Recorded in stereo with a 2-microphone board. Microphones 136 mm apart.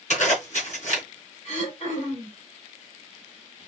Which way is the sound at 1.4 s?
50° left (ahead or behind).